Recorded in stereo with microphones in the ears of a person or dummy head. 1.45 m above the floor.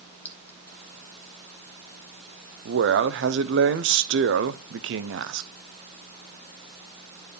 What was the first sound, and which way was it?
A clink, 10° left (ahead or behind).